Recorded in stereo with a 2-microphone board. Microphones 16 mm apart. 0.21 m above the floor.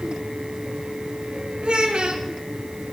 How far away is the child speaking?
About 1.3 m.